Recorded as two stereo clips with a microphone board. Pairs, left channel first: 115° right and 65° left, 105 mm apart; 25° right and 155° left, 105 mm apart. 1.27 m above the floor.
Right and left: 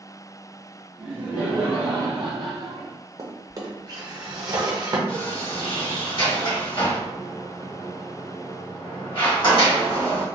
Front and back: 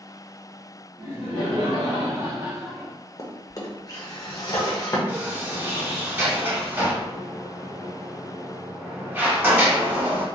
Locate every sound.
1.0 s laughter: 140° left, 1.0 m; by 3.0 s 55° left, 0.6 m
3.2 s a drawer: 25° left, 0.6 m
5.1 s a sliding door: 140° right, 1.2 m